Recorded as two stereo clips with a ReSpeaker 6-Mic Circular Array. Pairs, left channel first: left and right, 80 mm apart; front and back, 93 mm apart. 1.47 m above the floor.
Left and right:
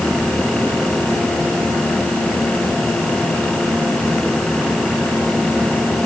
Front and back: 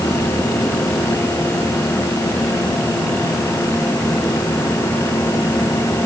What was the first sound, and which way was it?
Only background noise.